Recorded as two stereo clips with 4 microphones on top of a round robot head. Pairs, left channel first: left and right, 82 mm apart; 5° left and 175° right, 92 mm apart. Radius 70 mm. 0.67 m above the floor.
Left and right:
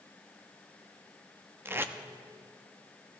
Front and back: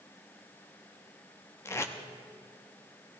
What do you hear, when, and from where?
1.6 s tape being pulled: 40° right, 0.8 m